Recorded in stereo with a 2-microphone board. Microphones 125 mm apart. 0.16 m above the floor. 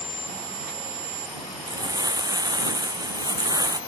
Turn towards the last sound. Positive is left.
turn(degrees=-30)  # may be behind; listen again after turning